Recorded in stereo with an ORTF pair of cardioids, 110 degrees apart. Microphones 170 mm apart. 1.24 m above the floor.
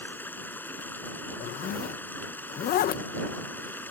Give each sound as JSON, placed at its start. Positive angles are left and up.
{"t": 0.0, "sound": "running water", "azimuth_deg": 10}
{"t": 1.4, "sound": "a zipper", "azimuth_deg": 70}